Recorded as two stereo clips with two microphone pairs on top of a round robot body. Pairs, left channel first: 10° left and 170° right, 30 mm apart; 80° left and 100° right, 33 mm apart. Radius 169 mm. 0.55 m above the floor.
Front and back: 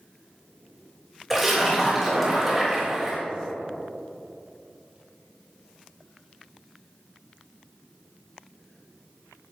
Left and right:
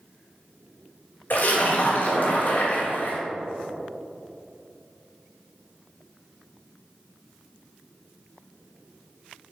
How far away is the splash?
About 3.5 m.